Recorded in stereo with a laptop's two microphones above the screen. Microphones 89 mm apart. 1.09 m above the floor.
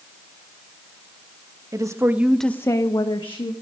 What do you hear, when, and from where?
1.7 s a woman speaking: 40° right (ahead or behind), 1.3 m; by 3.5 s 75° left (ahead or behind), 1.6 m